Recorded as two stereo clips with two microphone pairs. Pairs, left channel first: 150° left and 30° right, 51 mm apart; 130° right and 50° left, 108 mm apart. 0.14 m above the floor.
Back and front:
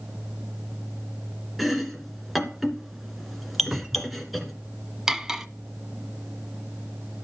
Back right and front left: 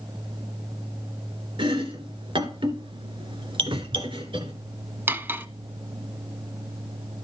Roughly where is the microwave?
I don't hear a microwave.